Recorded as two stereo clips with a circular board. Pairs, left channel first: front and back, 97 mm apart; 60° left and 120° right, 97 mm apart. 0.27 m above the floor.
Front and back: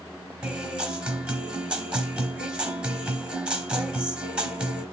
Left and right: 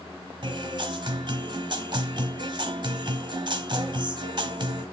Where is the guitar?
105° right, 1.1 m.